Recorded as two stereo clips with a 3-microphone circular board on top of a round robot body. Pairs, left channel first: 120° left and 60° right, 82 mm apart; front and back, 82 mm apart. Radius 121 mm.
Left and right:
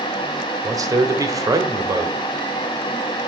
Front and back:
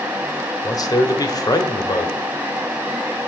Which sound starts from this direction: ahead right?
A man speaking, at 0.6 s.